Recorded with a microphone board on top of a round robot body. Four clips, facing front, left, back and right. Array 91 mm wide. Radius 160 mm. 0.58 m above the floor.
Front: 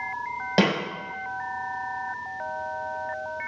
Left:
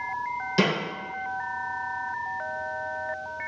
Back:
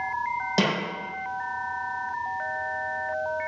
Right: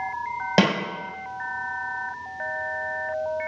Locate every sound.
0.6 s a snare drum: 65° right, 2.5 m